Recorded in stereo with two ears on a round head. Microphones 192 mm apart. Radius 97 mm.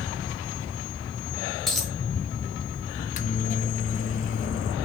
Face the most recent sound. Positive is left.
turn(degrees=40)  # may be behind; listen again after turning